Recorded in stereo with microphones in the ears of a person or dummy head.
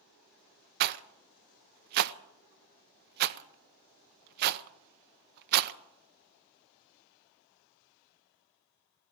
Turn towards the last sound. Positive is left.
turn(degrees=-50)  # may be behind; listen again after turning